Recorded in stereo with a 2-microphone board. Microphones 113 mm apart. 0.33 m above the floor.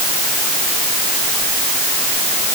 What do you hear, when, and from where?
Only background noise.